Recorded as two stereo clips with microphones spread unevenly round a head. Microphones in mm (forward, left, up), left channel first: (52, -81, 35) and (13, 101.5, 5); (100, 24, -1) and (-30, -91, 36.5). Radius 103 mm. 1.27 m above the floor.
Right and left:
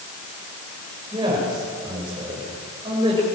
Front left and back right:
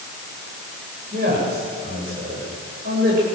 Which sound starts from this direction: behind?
A man speaking, at 1.1 s.